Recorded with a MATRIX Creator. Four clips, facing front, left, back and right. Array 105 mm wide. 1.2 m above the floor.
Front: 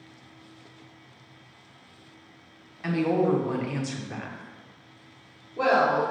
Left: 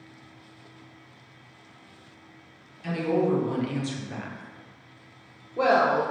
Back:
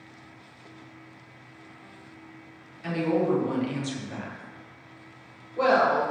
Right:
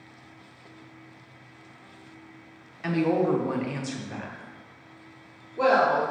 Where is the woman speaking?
65° right, 1.0 m; by 6.0 s 100° left, 1.2 m.